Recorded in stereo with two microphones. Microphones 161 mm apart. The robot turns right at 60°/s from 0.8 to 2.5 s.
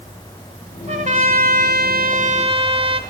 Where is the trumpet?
135° right, 0.8 m; by 3.0 s 40° right, 0.8 m.